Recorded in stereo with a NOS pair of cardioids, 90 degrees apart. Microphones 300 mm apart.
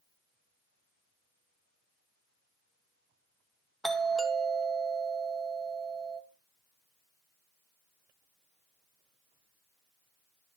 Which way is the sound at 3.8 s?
Straight ahead.